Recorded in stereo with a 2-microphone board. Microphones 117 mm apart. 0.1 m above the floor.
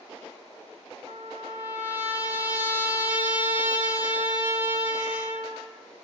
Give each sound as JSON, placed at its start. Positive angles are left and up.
{"t": 1.1, "sound": "a trumpet", "side_deg": -15, "distance_m": 0.6}